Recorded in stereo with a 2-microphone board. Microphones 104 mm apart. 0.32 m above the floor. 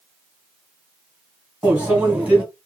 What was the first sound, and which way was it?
A microwave, 15° right (ahead or behind).